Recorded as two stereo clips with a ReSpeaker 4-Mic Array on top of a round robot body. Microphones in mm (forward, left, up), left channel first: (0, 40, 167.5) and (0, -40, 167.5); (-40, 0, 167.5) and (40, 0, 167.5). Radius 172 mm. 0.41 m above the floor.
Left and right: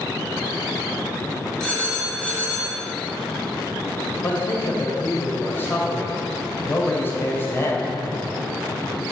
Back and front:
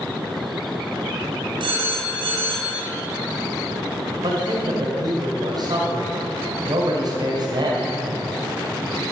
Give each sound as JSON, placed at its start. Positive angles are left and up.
{"t": 1.6, "sound": "a phone ringing", "azimuth_deg": 10, "distance_m": 3.5}
{"t": 4.2, "sound": "a man speaking", "azimuth_deg": 30, "distance_m": 2.5}